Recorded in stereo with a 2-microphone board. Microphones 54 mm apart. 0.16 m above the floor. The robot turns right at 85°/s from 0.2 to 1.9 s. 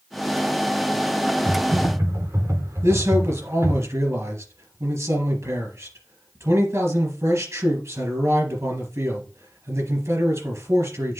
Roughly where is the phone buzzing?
No phone buzzing in this recording.